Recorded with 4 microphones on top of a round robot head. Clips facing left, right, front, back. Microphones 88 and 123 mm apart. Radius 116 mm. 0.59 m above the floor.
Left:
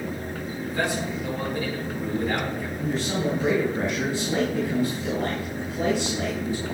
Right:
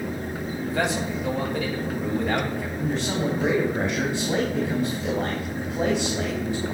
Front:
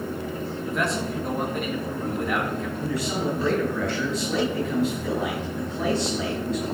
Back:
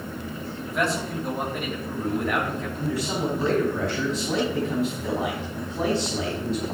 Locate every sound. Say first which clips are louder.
0.7 s a man speaking: right 1 dB, back 1 dB; 90° right, 3.5 m
2.8 s a man speaking: even, back 1 dB; 120° right, 3 m